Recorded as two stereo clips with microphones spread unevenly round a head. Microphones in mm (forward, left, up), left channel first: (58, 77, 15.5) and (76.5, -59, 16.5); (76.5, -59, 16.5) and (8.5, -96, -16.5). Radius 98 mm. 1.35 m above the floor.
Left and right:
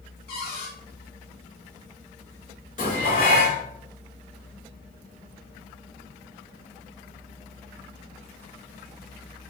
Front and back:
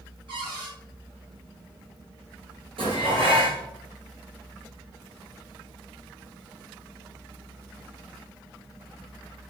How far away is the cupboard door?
About 3 m.